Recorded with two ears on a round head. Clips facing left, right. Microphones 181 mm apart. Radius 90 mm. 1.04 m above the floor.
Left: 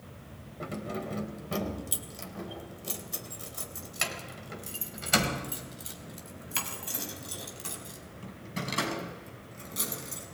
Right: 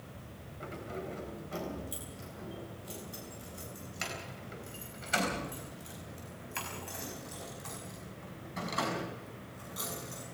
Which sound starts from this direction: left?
Keys jangling, at 0.6 s.